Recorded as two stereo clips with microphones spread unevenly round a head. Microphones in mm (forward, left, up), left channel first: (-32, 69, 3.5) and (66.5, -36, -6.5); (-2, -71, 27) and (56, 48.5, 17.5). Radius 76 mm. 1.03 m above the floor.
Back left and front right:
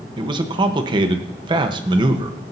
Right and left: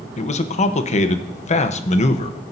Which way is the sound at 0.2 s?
100° right.